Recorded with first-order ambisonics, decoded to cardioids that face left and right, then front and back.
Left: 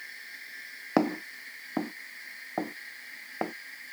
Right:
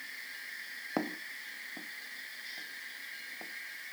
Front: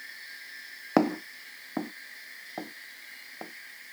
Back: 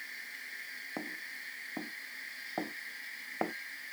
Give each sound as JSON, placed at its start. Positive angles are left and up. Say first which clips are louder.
{"t": 1.0, "sound": "footsteps", "louder": "left 10 dB, front 18 dB", "azimuth_deg": 35}